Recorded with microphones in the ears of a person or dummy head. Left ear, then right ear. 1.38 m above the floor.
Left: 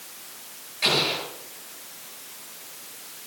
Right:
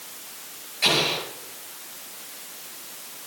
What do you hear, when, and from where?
0.8 s an explosion: centre (ahead or behind), 9.5 m